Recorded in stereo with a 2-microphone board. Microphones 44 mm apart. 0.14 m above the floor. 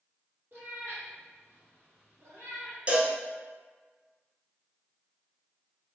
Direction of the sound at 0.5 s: 55° right (ahead or behind).